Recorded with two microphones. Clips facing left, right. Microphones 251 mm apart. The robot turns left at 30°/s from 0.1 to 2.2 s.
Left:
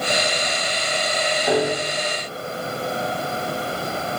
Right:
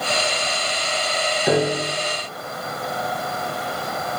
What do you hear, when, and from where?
1.5 s a piano: 80° right, 4.5 m